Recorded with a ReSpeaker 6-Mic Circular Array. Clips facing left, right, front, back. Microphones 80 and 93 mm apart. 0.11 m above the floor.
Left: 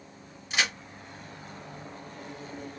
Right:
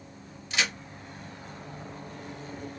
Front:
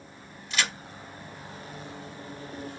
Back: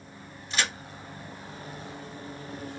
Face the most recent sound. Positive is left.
turn(degrees=150)